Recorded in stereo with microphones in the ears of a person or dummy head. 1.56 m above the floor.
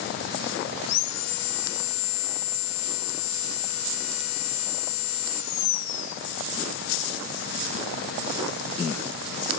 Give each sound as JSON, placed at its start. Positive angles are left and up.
{"t": 0.8, "sound": "sawing", "side_deg": 80, "distance_m": 0.6}